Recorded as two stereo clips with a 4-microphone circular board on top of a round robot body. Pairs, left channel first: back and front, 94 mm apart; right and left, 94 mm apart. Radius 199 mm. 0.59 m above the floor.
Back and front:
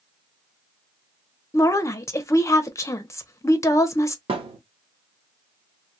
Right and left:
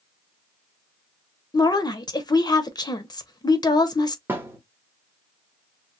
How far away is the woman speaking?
About 0.9 m.